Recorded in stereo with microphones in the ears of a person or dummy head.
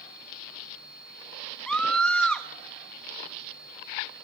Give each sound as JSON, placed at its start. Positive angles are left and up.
{"t": 1.7, "sound": "a scream", "side_deg": 5, "distance_m": 1.3}